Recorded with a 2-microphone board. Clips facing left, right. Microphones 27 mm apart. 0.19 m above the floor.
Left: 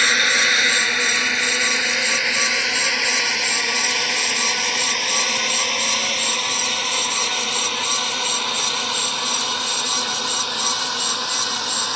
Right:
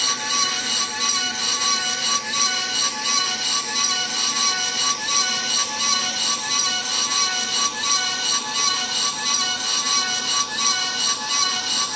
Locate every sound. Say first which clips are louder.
0.0 s a drone: left 6 dB; 55° left (ahead or behind); by 12.0 s 35° left (ahead or behind)